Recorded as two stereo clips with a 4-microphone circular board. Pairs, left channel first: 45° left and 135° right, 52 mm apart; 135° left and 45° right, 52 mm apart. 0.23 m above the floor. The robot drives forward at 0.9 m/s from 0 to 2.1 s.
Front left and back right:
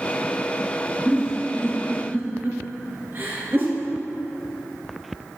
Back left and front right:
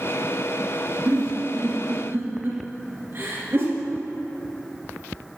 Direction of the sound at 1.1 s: 65° right.